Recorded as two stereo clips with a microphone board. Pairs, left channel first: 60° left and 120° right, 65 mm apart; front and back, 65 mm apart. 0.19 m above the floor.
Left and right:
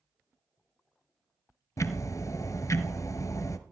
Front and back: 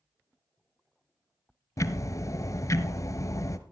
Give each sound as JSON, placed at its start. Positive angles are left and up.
{"t": 1.8, "sound": "ticking", "azimuth_deg": 30, "distance_m": 1.1}